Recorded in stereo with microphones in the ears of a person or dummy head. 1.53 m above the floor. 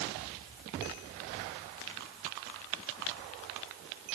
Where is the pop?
No pop in this recording.